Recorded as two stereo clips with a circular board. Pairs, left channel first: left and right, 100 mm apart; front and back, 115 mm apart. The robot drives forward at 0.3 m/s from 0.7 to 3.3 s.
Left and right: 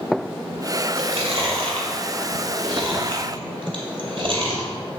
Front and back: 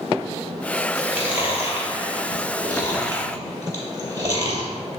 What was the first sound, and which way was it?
Chewing, 110° right.